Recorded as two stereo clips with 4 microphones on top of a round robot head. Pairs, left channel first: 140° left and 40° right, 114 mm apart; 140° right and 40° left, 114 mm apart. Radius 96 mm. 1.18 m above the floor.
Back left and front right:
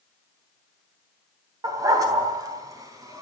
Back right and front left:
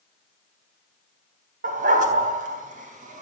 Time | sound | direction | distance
1.6 | a dog barking | 25° left | 3 m